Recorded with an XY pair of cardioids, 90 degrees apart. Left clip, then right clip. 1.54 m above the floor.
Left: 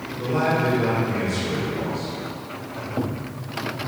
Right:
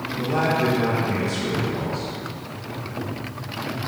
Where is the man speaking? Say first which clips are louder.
Even; 70° right, 2.0 m.